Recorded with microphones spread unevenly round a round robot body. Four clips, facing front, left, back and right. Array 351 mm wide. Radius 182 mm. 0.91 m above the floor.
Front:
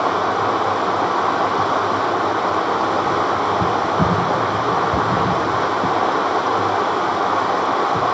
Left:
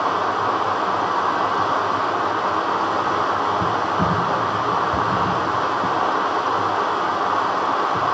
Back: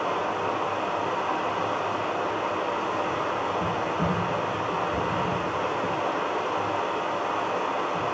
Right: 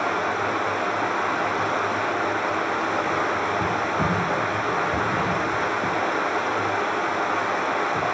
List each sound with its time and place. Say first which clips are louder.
0.0 s running water: left 4 dB, front 9 dB; 10° left, 0.7 m